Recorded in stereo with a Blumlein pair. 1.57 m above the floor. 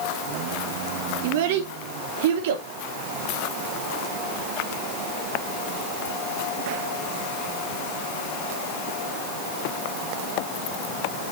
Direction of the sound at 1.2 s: 55° right.